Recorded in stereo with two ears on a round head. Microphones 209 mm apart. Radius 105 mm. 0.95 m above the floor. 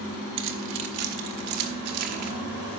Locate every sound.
0.4 s keys jangling: 60° right (ahead or behind), 1.2 m; by 2.3 s 75° right (ahead or behind), 1.6 m